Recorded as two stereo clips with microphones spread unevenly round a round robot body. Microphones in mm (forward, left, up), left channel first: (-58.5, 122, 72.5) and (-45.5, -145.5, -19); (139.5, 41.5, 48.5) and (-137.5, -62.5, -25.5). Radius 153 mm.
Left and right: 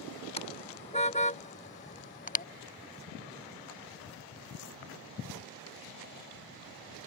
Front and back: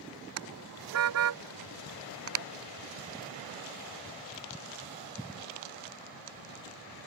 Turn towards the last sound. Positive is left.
turn(degrees=150)